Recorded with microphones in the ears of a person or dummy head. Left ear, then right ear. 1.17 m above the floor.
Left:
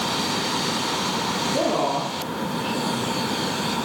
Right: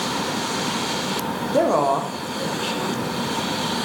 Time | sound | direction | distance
1.5 | a woman speaking | 60° right (ahead or behind) | 1.3 m